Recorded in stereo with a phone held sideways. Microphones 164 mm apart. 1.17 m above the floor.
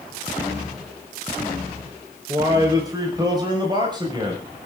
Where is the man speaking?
20° right (ahead or behind), 4.5 m; by 4.7 s 30° right (ahead or behind), 6.5 m.